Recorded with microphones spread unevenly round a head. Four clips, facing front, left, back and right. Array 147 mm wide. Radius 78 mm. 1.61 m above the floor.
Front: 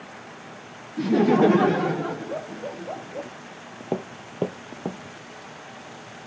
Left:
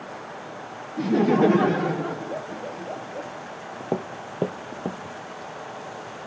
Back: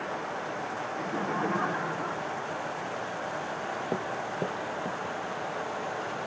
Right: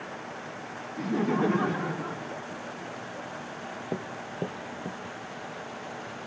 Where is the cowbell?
No cowbell in this recording.